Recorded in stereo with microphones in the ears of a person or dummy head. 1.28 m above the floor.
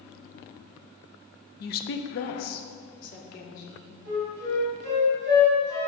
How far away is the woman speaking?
About 0.5 m.